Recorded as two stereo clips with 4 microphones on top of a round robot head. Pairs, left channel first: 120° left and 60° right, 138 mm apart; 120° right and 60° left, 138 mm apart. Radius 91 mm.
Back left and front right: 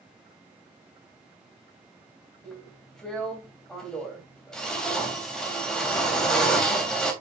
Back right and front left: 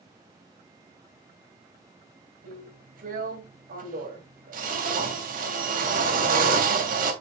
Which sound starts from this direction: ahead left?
A drill, at 2.4 s.